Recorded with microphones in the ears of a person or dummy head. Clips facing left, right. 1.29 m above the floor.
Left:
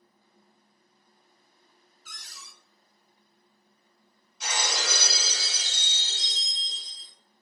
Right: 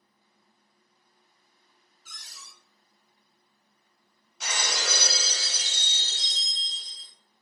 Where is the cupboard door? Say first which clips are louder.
Left 2 dB; 60° left (ahead or behind), 1.5 m.